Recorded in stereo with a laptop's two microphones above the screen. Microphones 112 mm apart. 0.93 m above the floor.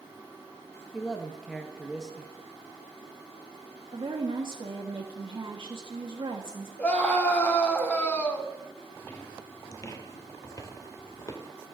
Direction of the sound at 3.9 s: 50° right (ahead or behind).